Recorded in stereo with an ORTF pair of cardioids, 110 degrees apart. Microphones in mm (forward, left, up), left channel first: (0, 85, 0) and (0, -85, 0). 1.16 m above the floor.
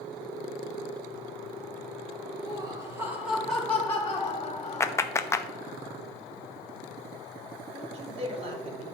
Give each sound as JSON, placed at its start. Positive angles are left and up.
{"t": 2.4, "sound": "laughter", "azimuth_deg": -30, "distance_m": 1.7}
{"t": 4.8, "sound": "a clap", "azimuth_deg": 15, "distance_m": 0.7}
{"t": 7.7, "sound": "a man speaking", "azimuth_deg": -35, "distance_m": 3.0}